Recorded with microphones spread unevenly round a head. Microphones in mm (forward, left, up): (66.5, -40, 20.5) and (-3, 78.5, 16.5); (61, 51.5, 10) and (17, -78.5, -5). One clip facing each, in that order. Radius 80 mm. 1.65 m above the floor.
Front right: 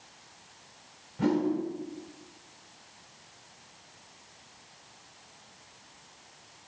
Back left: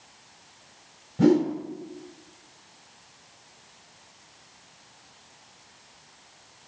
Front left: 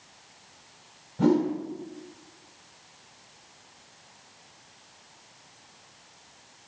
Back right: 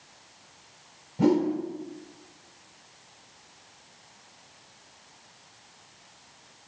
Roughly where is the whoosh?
Behind.